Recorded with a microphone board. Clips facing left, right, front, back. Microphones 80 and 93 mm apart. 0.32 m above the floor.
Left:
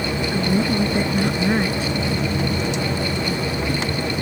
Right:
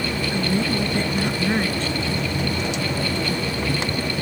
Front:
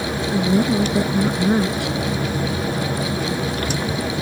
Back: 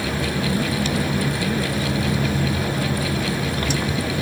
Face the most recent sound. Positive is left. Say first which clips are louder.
# left 3 dB, front 8 dB
turn(degrees=10)